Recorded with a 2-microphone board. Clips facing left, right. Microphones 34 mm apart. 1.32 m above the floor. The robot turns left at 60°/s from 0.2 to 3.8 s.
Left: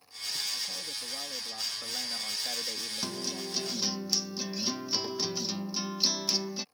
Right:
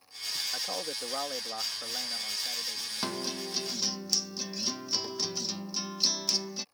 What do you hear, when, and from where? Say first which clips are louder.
0.5 s a man speaking: right 3 dB; 80° right; by 3.9 s 85° left
3.0 s a guitar: right 4 dB; 140° right; by 6.7 s 175° left